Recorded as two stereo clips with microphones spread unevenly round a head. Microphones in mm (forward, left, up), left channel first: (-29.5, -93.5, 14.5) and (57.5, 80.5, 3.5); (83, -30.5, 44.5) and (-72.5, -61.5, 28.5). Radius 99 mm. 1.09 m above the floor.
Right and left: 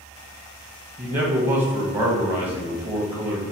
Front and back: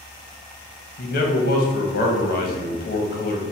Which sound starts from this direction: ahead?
A man speaking, at 1.0 s.